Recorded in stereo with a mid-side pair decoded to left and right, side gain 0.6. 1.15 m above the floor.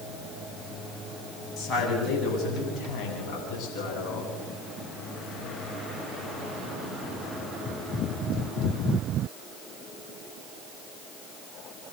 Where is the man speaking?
40° left, 9 m; by 4.3 s 60° left, 10.5 m.